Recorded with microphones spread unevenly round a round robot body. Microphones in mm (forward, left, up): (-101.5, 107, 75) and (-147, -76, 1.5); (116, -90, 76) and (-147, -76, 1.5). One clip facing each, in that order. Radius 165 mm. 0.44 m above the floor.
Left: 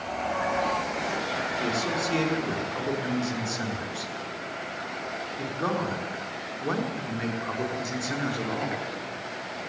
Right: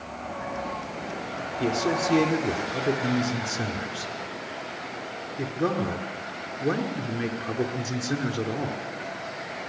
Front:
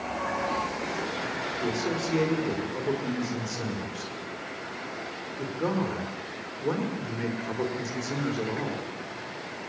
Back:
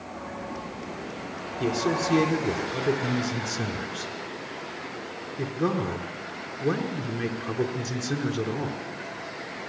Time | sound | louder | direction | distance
1.6 | a man speaking | right 6 dB, back 4 dB | 155° right | 5.5 m